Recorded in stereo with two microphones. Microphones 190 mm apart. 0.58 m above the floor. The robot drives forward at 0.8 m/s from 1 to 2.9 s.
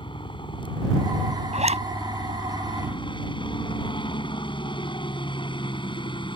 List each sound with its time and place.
0.0 s a helicopter: 25° left (ahead or behind)
1.5 s a zipper: 35° right (ahead or behind)